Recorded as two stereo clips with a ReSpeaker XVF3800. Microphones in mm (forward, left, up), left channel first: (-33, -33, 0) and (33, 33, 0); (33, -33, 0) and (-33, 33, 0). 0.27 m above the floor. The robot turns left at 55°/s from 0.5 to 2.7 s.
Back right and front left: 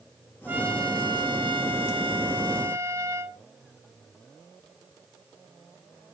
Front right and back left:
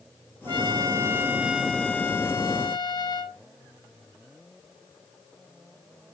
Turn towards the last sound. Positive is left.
turn(degrees=-15)